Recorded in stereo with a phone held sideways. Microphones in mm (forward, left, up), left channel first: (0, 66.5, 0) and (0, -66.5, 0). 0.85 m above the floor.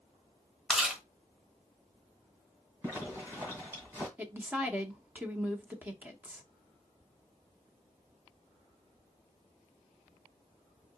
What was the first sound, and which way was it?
Chewing, 5° right (ahead or behind).